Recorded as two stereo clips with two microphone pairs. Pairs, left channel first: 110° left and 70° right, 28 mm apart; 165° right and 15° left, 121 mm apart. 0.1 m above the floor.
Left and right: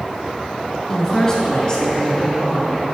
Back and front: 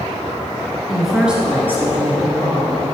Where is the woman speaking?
110° left, 1.3 m; by 2.8 s 60° left, 2 m.